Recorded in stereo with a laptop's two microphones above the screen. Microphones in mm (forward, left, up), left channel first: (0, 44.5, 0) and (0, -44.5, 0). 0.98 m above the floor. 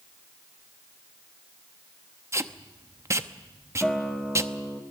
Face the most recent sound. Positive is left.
turn(degrees=0)  # may be behind; listen again after turning